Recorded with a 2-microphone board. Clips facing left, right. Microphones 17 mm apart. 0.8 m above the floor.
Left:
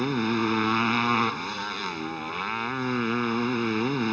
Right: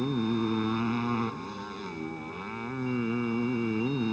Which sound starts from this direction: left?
A motorcycle, at 0.0 s.